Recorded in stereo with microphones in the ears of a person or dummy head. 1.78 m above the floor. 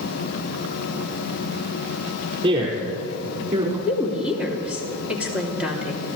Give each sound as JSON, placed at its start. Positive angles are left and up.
{"t": 2.4, "sound": "a man speaking", "side_deg": -30, "distance_m": 6.0}
{"t": 3.9, "sound": "a woman speaking", "side_deg": -5, "distance_m": 3.0}